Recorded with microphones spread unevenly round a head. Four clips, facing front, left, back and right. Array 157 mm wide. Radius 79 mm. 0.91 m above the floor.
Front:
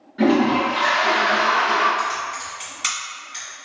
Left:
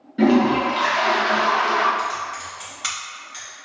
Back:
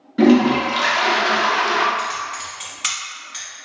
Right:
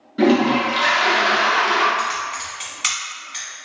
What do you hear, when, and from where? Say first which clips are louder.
0.2 s a toilet flushing: even, back 3 dB; 170° right, 0.6 m
2.0 s typing on a keyboard: right 2 dB, front 1 dB; 105° right, 1.4 m